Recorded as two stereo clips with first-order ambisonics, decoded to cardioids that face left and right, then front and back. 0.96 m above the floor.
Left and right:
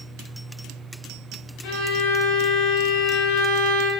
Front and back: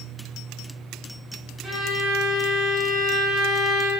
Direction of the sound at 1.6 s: 100° left.